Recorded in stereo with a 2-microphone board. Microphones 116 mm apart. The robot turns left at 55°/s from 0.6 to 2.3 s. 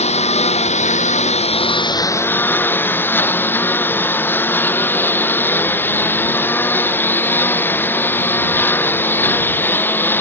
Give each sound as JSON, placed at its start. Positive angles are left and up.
{"t": 0.0, "sound": "a lawn mower", "azimuth_deg": 110}